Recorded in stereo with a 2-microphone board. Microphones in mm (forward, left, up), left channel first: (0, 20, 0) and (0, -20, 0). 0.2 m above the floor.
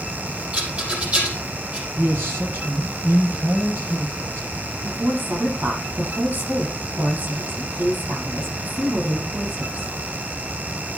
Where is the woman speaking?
55° right (ahead or behind), 7.5 m.